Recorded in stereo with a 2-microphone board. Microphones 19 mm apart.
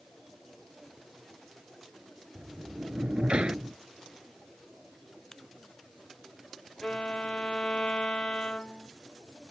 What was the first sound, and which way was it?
A sliding door, 70° right (ahead or behind).